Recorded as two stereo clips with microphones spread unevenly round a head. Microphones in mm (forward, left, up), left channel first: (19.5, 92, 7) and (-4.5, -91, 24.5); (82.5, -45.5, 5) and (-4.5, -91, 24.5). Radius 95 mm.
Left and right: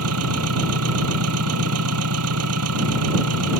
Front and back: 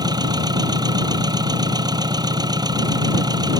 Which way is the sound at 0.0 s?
105° right.